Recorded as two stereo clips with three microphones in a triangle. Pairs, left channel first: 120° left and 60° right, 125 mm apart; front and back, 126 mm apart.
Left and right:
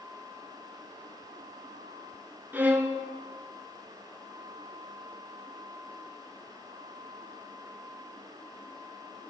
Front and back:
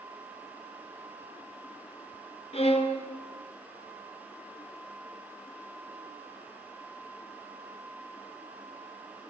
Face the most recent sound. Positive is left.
turn(degrees=15)